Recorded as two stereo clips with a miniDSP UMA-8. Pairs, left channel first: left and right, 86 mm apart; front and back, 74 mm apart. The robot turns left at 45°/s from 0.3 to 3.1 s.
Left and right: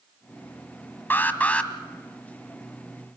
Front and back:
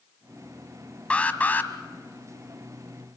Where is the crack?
I don't hear a crack.